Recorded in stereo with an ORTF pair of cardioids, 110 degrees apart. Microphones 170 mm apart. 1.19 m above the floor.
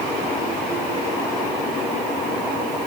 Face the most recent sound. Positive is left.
No sound to turn to.